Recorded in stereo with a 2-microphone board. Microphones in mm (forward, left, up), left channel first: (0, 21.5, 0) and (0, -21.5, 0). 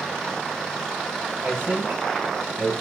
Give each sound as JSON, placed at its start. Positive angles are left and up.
{"t": 1.4, "sound": "a man speaking", "side_deg": -45, "distance_m": 3.5}